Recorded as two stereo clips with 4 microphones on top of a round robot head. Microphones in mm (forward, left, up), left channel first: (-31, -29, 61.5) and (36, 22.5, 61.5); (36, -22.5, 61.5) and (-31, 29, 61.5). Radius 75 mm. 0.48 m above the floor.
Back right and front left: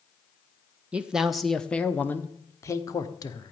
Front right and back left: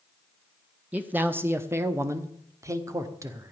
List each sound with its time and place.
0.9 s a man speaking: 95° left, 1.3 m; by 3.5 s 170° right, 2 m